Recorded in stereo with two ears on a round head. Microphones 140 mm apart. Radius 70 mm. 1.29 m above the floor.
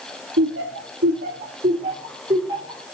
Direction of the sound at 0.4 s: 85° right.